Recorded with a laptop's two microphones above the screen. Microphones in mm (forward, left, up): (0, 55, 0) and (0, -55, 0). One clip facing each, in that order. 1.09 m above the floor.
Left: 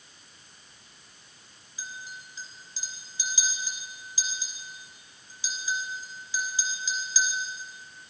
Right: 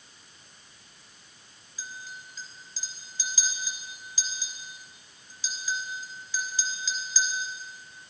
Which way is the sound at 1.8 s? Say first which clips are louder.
Even; 15° left (ahead or behind).